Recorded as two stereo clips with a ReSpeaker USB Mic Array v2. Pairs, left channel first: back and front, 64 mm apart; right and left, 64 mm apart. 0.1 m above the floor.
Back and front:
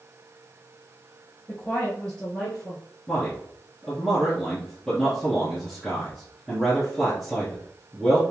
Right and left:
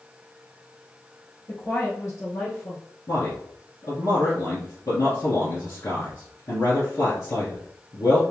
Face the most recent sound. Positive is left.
turn(degrees=-95)